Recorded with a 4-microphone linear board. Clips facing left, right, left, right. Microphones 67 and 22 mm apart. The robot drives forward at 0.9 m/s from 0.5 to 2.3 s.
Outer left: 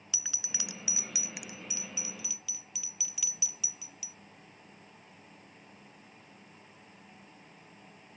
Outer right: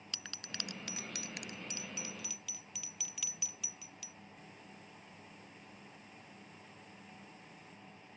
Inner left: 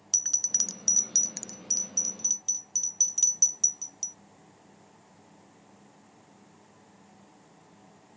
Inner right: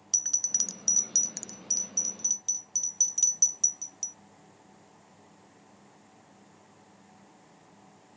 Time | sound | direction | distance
0.1 | a bell | 10° left (ahead or behind) | ?